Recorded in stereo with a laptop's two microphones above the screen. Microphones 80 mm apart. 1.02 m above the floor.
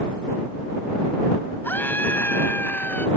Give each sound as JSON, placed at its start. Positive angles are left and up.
{"t": 1.6, "sound": "a scream", "side_deg": 25}